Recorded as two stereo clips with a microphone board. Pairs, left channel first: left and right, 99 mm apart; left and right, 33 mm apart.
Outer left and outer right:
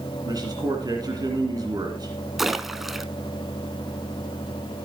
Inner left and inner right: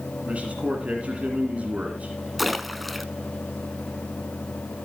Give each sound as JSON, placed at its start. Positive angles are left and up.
{"t": 0.2, "sound": "a man speaking", "side_deg": -45, "distance_m": 2.0}
{"t": 2.4, "sound": "a splash", "side_deg": -5, "distance_m": 0.6}